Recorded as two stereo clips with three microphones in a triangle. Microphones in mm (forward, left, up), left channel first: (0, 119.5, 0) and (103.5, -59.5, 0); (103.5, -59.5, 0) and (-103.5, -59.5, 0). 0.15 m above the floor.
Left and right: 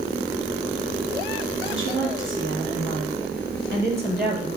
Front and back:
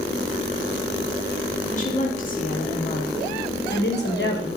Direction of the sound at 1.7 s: 50° right.